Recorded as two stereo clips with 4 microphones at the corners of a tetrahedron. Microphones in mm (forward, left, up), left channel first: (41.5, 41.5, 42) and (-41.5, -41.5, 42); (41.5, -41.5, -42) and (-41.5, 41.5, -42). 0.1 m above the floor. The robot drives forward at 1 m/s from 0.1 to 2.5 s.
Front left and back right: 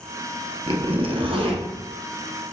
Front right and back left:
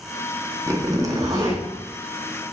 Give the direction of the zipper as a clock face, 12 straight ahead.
5 o'clock.